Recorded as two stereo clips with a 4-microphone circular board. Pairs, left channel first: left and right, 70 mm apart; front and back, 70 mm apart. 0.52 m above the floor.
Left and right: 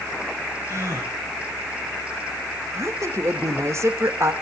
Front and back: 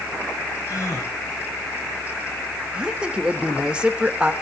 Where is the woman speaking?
110° right, 1.6 m.